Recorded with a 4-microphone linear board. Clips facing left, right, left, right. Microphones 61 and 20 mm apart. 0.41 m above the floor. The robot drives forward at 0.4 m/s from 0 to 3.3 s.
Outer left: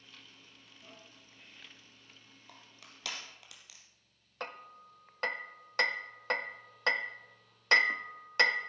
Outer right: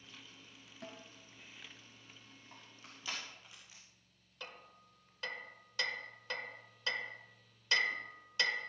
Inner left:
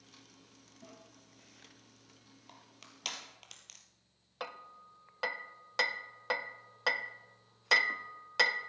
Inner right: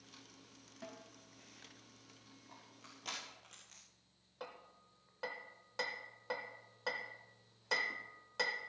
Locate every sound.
0.8 s a snare drum: 65° right (ahead or behind), 3 m
2.5 s crushing: 80° left, 2.5 m; by 3.8 s 85° left, 2.5 m
4.4 s hammering: 55° left (ahead or behind), 0.5 m